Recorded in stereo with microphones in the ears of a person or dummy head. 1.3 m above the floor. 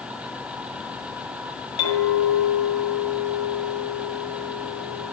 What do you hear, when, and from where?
1.8 s a clink: 35° left (ahead or behind), 5 m